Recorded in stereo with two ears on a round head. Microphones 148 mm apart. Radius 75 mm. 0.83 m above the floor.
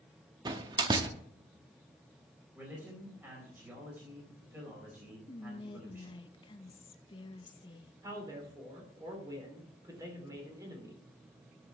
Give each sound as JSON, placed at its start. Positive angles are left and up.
{"t": 0.5, "sound": "a door slam", "side_deg": -25, "distance_m": 0.8}
{"t": 2.5, "sound": "a man speaking", "side_deg": -10, "distance_m": 4.0}
{"t": 5.3, "sound": "whispering", "side_deg": 30, "distance_m": 0.7}
{"t": 8.0, "sound": "a man speaking", "side_deg": -20, "distance_m": 3.5}